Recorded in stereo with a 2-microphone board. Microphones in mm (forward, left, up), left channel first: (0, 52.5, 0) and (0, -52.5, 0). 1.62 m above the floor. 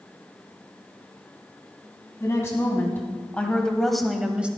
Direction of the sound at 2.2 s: 30° left (ahead or behind).